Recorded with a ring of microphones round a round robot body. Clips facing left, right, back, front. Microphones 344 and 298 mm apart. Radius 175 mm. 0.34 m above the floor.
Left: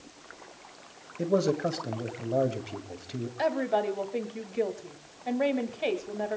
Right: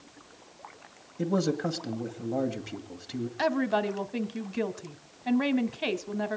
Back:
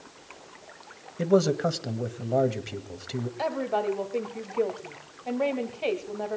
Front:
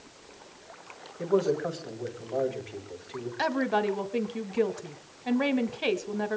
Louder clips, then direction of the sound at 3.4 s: Right 1 dB, front 3 dB; 50° right.